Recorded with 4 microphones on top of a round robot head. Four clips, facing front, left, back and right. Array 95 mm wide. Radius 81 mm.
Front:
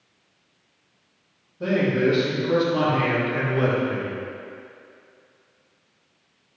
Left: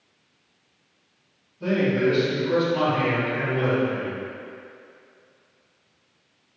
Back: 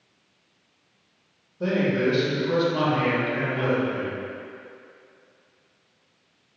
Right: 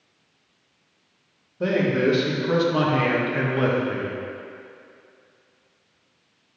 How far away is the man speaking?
About 2.5 m.